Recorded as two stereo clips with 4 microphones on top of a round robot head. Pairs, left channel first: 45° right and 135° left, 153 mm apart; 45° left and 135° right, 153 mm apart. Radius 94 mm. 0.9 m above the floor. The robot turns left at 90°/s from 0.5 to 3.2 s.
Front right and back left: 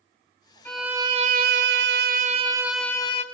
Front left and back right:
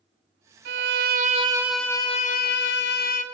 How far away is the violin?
About 0.6 m.